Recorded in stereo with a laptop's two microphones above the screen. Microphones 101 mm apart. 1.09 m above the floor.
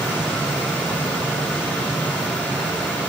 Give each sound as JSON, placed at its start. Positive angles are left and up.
{"t": 0.0, "sound": "a machine running", "side_deg": 15, "distance_m": 2.0}